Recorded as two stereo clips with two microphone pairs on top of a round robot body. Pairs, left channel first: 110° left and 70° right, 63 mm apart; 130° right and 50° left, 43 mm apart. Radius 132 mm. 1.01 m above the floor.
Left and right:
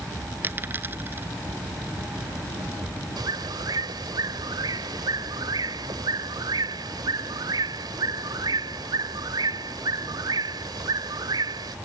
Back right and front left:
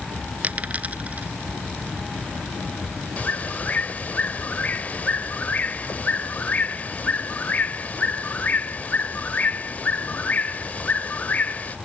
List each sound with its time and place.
0.4 s a dropped coin: 10° right
3.2 s a bird: 75° right